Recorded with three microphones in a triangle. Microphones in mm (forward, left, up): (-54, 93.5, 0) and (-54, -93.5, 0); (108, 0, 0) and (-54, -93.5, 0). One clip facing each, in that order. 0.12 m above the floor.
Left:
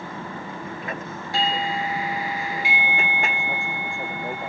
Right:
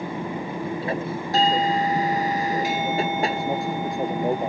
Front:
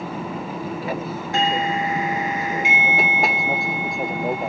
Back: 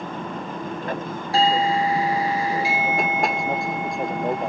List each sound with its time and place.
0.0 s an aircraft: 50° right; by 4.5 s 60° right
1.3 s a doorbell: 110° right